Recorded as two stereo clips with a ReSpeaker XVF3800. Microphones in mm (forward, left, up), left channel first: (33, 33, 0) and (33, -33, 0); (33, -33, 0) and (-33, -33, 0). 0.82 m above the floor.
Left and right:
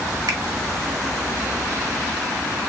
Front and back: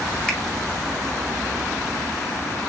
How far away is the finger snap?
About 1.3 m.